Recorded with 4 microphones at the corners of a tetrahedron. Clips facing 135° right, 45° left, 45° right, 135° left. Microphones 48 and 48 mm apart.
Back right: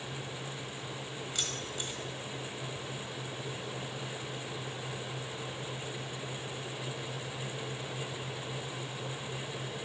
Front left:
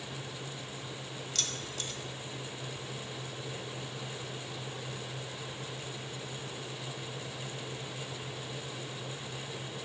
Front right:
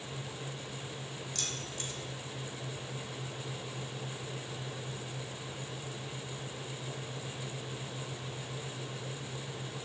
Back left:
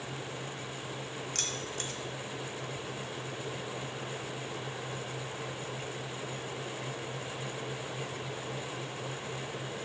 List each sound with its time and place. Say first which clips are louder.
1.4 s keys jangling: even, back left 3 dB; 150° left, 1.2 m